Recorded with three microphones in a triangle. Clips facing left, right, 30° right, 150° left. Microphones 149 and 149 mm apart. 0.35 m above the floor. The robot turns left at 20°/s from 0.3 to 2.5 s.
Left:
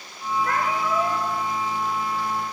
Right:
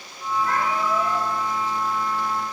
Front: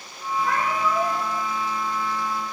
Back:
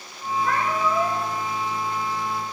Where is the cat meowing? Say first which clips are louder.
Right 1 dB, back 1 dB; 55° left, 2.5 m; by 1.2 s 40° left, 2.5 m.